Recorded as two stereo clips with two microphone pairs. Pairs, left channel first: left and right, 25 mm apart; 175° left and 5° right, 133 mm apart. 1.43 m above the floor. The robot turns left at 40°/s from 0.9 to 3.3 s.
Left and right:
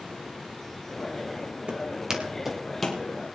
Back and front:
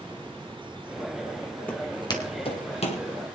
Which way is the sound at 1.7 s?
115° right.